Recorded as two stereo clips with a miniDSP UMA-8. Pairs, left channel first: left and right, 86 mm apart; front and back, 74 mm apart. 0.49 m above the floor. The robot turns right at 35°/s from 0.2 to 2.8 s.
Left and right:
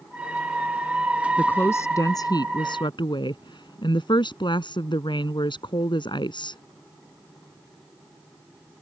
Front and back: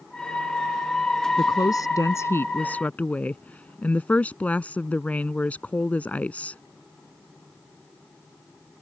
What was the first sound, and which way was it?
A woman speaking, 20° left.